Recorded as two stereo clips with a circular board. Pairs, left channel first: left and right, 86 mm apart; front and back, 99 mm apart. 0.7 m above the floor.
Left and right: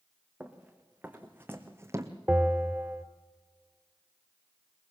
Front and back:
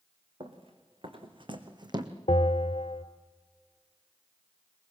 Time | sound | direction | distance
0.4 | running footsteps | 165° right | 2.5 m
2.3 | a bell | 15° right | 1.1 m